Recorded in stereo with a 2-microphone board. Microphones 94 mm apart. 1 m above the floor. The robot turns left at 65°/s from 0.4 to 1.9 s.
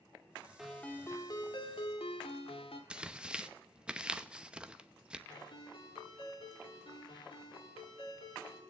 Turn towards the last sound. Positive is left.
turn(degrees=65)  # may be behind; listen again after turning